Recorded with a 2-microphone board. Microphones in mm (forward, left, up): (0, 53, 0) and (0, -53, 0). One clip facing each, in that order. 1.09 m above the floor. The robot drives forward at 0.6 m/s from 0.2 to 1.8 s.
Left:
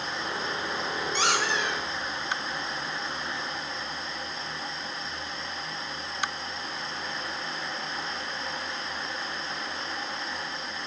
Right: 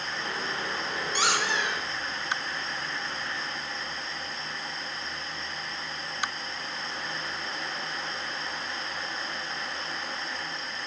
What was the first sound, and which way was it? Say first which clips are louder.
A squeak: even; 5° right (ahead or behind).